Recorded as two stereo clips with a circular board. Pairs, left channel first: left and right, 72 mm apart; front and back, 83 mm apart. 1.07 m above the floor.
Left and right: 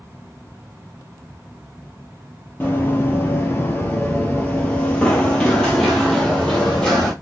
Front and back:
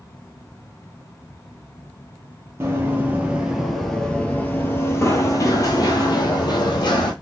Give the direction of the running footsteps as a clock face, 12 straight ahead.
7 o'clock.